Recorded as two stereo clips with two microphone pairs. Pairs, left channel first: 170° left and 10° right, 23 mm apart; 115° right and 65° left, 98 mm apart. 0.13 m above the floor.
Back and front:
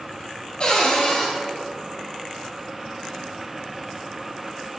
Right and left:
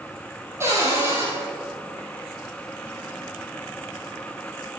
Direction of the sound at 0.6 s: 125° left.